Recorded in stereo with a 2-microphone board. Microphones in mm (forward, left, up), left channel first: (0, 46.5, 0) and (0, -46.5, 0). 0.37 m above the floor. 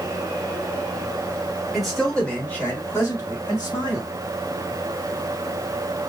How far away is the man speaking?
About 1.6 m.